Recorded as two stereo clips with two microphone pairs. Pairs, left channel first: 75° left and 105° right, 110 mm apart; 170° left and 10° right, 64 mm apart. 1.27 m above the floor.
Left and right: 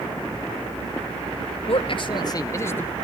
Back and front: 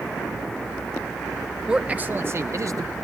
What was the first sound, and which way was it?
A man speaking, 60° left.